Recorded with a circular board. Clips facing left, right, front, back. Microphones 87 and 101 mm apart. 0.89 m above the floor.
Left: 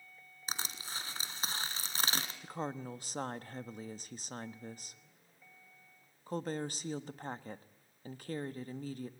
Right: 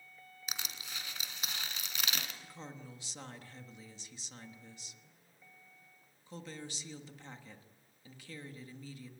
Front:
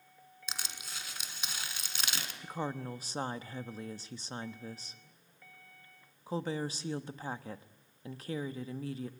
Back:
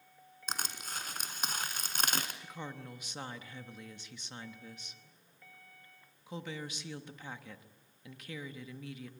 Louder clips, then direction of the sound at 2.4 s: Left 9 dB, front 7 dB; 50° left.